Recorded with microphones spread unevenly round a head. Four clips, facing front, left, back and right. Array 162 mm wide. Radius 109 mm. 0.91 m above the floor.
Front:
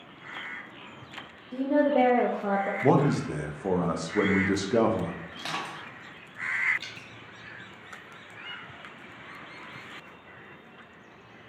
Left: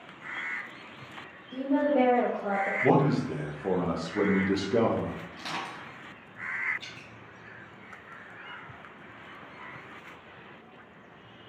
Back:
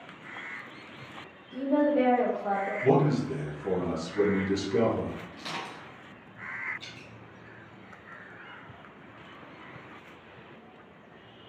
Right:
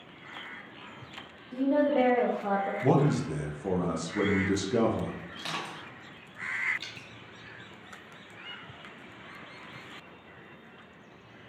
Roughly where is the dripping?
Ahead right.